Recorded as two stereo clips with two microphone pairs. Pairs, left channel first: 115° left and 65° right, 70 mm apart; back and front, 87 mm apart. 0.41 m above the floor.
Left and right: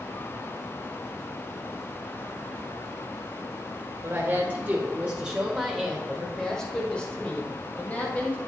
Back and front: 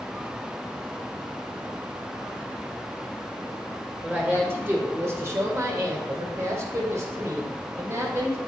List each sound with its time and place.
4.0 s a woman speaking: 50° right, 1.5 m; by 8.4 s 55° left, 3 m